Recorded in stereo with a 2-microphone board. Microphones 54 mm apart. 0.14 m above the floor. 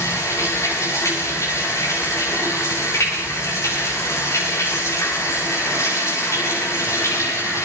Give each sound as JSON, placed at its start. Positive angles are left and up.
{"t": 0.0, "sound": "running water", "side_deg": 65, "distance_m": 9.0}